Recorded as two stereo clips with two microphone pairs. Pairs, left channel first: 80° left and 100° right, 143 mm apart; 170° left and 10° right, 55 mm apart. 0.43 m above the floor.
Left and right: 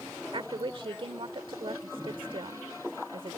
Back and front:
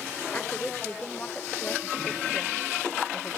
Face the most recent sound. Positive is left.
turn(degrees=-130)